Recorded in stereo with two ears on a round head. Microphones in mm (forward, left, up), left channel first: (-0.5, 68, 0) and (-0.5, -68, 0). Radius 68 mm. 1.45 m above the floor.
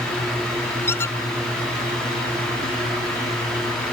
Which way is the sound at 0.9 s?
15° left (ahead or behind).